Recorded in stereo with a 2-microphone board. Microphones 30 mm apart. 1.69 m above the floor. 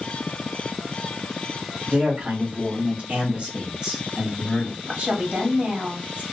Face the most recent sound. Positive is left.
turn(degrees=-45)  # may be behind; listen again after turning